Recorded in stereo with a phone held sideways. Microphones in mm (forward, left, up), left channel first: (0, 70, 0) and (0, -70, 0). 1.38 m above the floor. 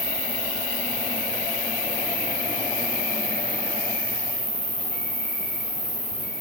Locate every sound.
0.0 s an insect: 35° left (ahead or behind), 1.9 m